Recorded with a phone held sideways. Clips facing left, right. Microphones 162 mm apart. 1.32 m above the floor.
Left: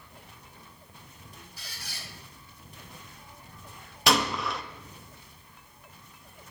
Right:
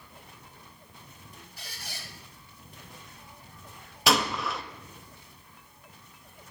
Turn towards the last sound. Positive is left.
turn(degrees=0)  # may be behind; listen again after turning